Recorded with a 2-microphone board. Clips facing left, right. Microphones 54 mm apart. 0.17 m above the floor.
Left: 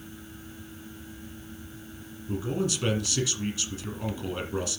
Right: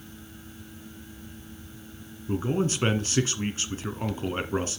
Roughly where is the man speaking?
Right.